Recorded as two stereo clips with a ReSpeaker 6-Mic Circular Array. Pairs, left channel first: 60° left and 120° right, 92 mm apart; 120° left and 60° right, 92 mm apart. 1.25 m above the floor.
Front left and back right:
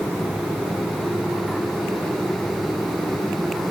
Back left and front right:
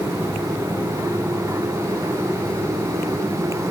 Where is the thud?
No thud in this recording.